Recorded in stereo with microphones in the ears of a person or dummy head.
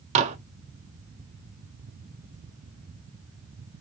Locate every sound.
0.1 s dishes clattering: 35° right (ahead or behind), 0.7 m